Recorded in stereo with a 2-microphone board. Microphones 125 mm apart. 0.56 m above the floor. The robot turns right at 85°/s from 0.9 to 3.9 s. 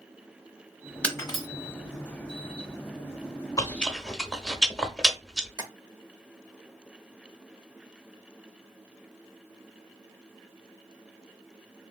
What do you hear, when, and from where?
1.0 s breaking glass: 10° left (ahead or behind), 1.0 m; by 1.5 s 45° left (ahead or behind), 1.0 m
3.6 s chewing: 30° left (ahead or behind), 0.6 m; by 5.5 s centre (ahead or behind), 0.6 m
5.6 s tapping: 30° right (ahead or behind), 0.7 m